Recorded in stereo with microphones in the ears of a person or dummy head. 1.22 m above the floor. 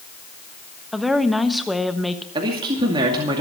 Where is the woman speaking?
Centre (ahead or behind), 1.0 m.